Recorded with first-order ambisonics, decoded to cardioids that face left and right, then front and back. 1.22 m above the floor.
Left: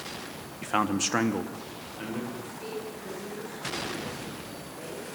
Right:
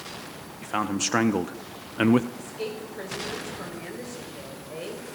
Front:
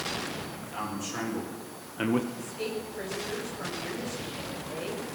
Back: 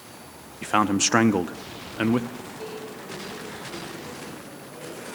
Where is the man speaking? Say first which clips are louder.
Left 1 dB, back 17 dB; 170° left, 1.3 m; by 2.3 s 100° right, 1.1 m.